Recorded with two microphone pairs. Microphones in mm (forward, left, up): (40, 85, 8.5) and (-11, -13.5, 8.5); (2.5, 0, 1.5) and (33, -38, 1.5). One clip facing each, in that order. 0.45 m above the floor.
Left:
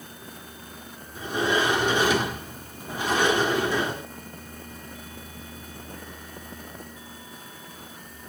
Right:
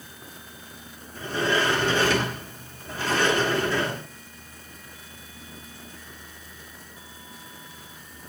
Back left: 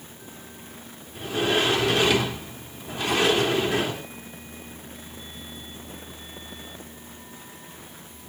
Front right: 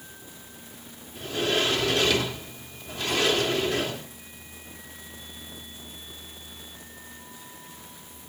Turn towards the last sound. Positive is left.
turn(degrees=95)